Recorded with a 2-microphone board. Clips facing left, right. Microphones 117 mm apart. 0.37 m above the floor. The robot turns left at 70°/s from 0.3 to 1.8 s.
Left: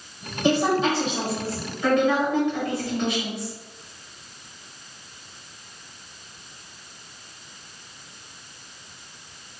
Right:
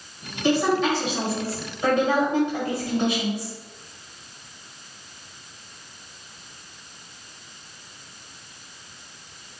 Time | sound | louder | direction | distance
0.4 | a woman speaking | even | 40° left | 1.8 m